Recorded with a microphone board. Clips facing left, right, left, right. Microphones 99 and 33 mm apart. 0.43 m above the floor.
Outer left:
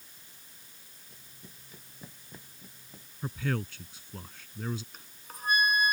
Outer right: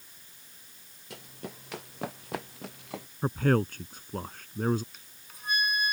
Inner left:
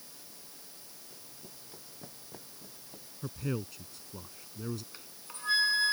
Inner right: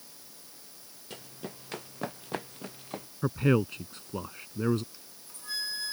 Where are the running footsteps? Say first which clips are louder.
Outer right 14 dB, inner right 14 dB; 80° right; by 3.1 s 85° right.